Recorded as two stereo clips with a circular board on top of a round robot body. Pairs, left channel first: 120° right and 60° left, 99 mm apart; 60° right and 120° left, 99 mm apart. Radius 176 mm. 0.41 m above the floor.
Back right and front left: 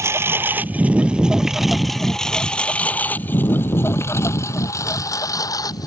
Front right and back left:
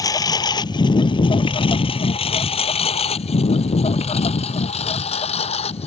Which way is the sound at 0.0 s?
5° right.